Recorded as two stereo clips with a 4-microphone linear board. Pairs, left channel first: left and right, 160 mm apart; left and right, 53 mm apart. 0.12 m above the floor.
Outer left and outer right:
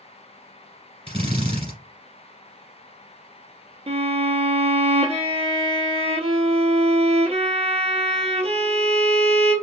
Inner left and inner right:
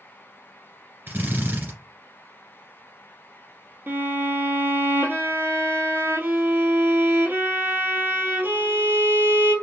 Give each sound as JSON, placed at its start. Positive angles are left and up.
{"t": 1.1, "sound": "a drill", "side_deg": -40, "distance_m": 1.9}
{"t": 3.9, "sound": "a violin", "side_deg": -40, "distance_m": 1.0}